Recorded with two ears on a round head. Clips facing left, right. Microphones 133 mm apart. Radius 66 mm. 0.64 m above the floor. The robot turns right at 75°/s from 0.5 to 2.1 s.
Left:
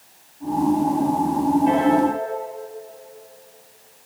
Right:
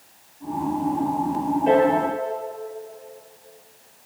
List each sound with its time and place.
1.7 s a piano: 45° right (ahead or behind), 6.5 m; by 2.0 s 70° right (ahead or behind), 6.5 m